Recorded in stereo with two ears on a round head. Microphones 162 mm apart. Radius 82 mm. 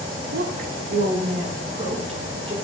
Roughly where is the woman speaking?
Right.